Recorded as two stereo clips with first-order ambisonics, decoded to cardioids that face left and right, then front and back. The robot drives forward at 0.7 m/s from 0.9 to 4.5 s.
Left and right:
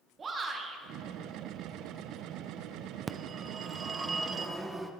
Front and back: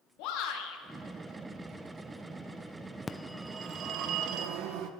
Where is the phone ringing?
50° right, 0.6 m; by 4.9 s 165° right, 1.0 m.